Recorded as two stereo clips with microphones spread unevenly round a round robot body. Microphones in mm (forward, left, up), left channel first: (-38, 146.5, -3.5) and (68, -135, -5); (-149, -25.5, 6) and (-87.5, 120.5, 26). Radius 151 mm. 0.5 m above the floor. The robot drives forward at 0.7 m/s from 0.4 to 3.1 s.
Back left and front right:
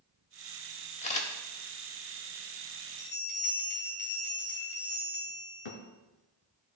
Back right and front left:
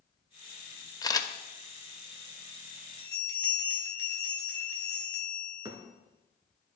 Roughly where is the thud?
Behind left.